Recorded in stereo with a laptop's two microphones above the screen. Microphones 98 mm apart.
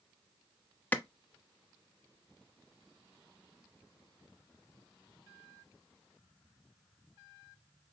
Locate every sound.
0.9 s a clap: 15° left (ahead or behind), 0.7 m